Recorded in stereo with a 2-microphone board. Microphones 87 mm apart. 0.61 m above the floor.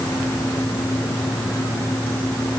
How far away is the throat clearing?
I don't hear throat clearing.